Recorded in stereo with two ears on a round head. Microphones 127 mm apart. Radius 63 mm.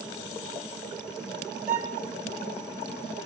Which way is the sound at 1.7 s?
50° right (ahead or behind).